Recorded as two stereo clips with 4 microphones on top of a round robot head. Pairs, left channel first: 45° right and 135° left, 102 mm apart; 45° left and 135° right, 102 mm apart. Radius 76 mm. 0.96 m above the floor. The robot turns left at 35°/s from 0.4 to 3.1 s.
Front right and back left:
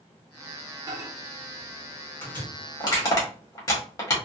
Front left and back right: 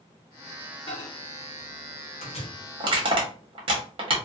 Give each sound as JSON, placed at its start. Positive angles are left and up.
{"t": 0.9, "sound": "a microwave", "azimuth_deg": 80, "distance_m": 0.9}
{"t": 2.8, "sound": "crushing", "azimuth_deg": -90, "distance_m": 1.0}